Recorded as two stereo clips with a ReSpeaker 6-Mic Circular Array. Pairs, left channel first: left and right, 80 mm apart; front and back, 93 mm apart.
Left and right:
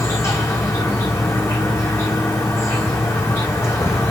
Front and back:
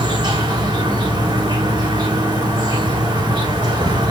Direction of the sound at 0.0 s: 145° left.